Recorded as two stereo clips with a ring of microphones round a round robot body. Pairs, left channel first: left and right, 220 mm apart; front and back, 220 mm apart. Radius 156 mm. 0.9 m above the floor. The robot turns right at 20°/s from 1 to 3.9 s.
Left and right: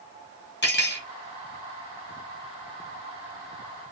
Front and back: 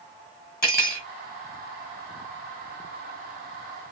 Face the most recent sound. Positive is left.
turn(degrees=110)